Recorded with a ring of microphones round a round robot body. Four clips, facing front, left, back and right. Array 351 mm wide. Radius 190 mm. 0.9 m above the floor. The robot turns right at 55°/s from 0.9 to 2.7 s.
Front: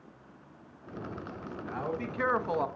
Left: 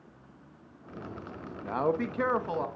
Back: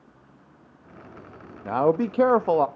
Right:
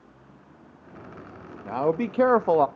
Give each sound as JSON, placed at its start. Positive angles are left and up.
{"t": 1.6, "sound": "a man speaking", "azimuth_deg": 180, "distance_m": 1.2}